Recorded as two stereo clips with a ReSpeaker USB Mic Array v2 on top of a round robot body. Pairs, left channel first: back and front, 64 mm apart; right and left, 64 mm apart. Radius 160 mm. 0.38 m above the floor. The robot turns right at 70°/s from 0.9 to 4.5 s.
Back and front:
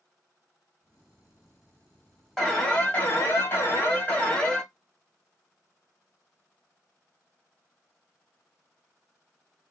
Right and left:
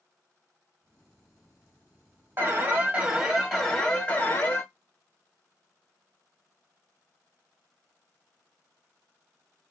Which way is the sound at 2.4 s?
95° left.